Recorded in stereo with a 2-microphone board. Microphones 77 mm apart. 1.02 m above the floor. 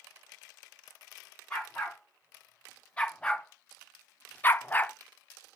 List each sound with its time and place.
1.5 s a dog barking: 10° left (ahead or behind), 4 m; by 5.0 s 15° left (ahead or behind), 0.7 m